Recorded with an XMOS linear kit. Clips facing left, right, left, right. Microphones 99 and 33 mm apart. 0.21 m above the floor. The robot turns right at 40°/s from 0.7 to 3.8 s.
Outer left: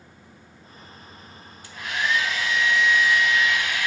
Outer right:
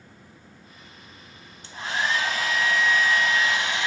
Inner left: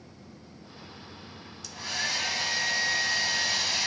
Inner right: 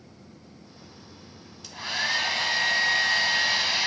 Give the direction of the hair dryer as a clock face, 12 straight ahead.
5 o'clock.